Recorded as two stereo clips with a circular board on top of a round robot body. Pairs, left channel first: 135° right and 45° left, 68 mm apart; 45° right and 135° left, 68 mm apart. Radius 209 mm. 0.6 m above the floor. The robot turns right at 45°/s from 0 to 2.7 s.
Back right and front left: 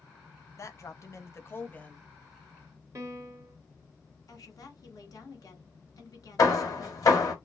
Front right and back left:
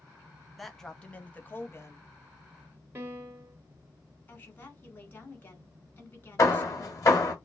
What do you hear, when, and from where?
0.6 s a man speaking: 135° right, 1.6 m; by 2.1 s 65° right, 1.6 m
3.0 s a piano: 85° left, 1.9 m
4.3 s a woman speaking: 100° right, 2.5 m
6.4 s hammering: 90° right, 2 m